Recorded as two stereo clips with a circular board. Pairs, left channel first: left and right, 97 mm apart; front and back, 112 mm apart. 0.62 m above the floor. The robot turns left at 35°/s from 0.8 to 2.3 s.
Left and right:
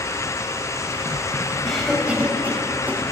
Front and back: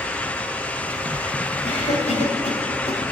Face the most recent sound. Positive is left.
turn(degrees=-20)